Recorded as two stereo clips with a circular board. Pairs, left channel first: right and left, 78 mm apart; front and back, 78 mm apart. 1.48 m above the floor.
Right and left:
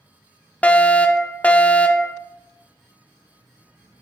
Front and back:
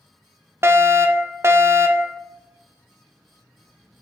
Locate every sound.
0.6 s a fire alarm: 150° right, 1.1 m